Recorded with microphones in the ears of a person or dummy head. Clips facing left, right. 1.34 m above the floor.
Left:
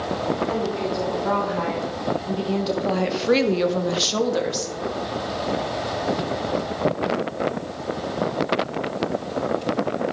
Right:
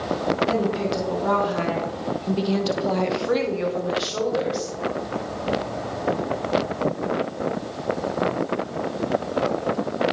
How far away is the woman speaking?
About 3 m.